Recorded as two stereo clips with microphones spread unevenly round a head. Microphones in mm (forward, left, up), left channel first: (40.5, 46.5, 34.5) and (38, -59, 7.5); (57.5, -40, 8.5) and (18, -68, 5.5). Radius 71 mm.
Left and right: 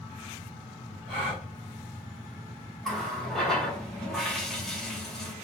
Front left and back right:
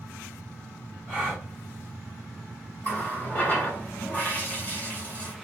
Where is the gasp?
75° left, 1.0 m.